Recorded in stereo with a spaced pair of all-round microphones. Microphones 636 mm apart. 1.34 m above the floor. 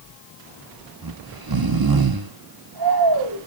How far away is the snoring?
About 0.9 m.